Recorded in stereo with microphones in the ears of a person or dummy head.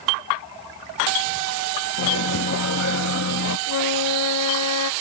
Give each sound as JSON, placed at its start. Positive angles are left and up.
{"t": 2.0, "sound": "a microwave", "side_deg": 65}
{"t": 3.7, "sound": "a flute", "side_deg": 85}